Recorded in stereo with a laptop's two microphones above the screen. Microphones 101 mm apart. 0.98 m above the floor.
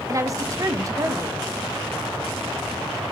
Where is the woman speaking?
30° right (ahead or behind), 1.2 m.